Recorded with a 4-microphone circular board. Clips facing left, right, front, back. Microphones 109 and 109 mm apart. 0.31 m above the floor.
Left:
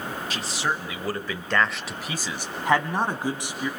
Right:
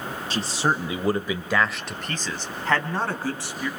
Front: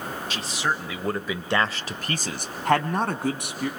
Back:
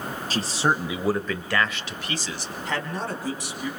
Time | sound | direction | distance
0.3 | a man speaking | 140° right | 1.4 m